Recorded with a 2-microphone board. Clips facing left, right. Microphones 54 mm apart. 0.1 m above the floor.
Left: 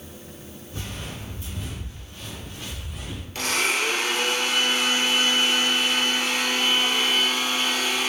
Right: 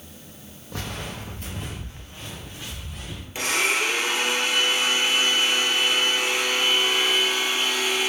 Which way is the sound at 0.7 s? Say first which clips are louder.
Right 4 dB; 85° right.